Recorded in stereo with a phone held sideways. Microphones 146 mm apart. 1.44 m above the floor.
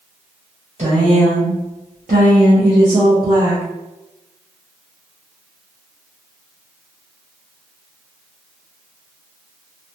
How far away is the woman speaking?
About 1.1 m.